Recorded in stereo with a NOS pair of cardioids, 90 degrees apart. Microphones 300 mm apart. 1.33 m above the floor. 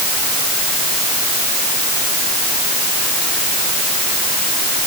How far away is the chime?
No chime in this recording.